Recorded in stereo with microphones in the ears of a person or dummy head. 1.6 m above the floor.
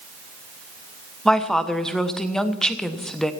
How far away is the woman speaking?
About 1.1 m.